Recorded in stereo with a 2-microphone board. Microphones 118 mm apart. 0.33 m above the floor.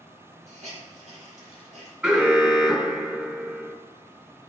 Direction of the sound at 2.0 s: 15° right (ahead or behind).